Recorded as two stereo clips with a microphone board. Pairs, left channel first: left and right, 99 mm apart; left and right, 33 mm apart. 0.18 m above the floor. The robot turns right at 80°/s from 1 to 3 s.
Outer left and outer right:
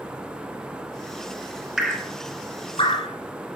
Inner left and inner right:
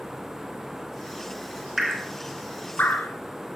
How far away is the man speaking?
No man speaking in this recording.